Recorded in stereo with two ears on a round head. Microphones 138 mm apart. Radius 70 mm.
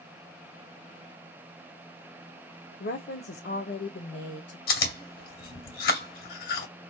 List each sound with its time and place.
2.8 s a woman speaking: 65° left (ahead or behind), 0.6 m; by 4.6 s 80° left, 1.8 m
4.7 s chewing: 65° left (ahead or behind), 2.5 m